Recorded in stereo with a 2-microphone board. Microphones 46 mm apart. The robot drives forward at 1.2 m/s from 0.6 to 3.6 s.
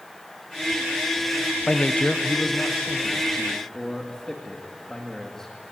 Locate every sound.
1.7 s a man speaking: 30° left (ahead or behind), 0.8 m; by 5.5 s 10° left (ahead or behind), 2.5 m